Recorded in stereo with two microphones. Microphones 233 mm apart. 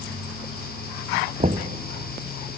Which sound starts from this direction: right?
Knocking, at 1.4 s.